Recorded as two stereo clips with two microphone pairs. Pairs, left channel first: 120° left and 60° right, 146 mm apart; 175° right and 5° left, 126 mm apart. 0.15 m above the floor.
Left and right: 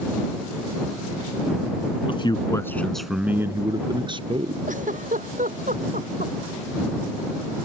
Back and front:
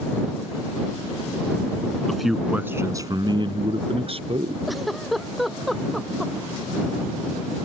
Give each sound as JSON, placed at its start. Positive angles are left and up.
{"t": 2.1, "sound": "a man speaking", "azimuth_deg": 100}
{"t": 4.7, "sound": "a giggle", "azimuth_deg": -85}